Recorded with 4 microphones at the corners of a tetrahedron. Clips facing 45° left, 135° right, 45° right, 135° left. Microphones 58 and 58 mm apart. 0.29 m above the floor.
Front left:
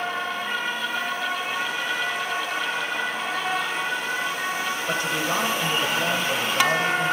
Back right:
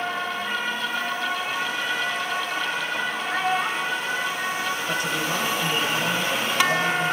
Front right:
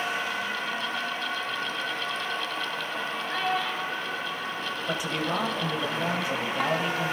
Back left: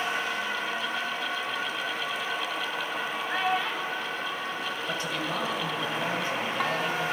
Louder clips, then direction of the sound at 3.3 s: Back right 2 dB, back left 1 dB; 160° right.